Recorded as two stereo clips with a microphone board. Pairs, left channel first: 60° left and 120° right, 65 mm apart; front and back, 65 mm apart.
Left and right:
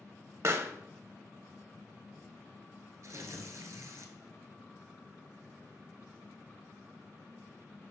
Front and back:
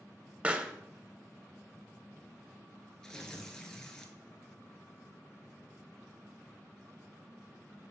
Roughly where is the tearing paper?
Right.